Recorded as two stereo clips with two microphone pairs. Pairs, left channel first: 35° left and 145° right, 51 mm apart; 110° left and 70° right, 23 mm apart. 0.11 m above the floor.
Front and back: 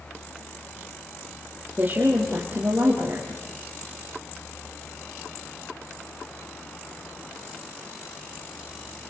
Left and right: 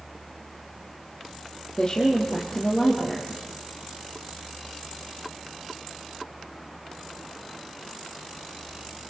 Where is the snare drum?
No snare drum in this recording.